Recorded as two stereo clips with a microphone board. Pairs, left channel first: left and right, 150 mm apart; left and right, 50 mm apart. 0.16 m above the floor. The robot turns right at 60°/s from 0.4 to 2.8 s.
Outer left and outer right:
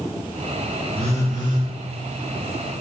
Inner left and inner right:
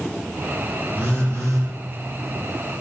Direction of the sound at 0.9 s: 140° right.